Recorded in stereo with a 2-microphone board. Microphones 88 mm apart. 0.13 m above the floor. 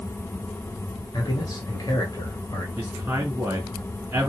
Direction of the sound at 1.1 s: 50° left (ahead or behind).